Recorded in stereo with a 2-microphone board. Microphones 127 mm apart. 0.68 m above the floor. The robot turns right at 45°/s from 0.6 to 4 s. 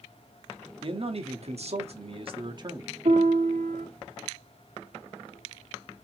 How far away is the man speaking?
About 1.0 m.